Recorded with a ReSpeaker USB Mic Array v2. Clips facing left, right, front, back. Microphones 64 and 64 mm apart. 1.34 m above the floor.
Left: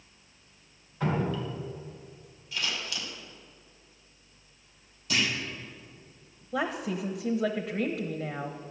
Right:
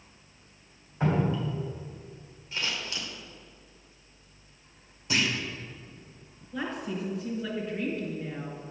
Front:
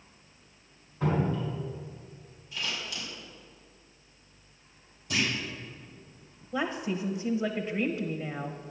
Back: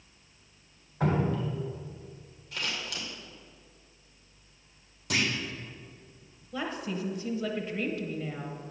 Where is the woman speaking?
65° left, 0.9 m.